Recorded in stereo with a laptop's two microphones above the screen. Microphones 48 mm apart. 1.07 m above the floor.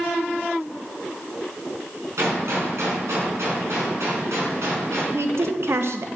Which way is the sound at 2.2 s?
75° right (ahead or behind).